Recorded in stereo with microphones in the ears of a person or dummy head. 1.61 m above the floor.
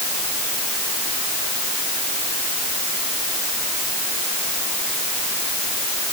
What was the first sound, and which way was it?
Only background noise.